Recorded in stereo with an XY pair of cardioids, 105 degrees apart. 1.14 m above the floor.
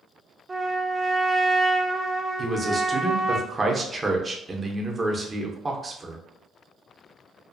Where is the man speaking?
25° right, 0.8 m.